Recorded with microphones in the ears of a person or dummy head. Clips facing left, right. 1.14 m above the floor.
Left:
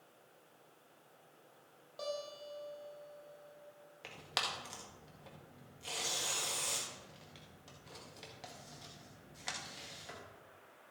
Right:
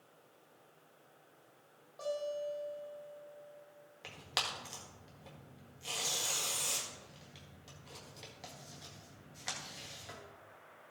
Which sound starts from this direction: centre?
Tearing paper, at 4.0 s.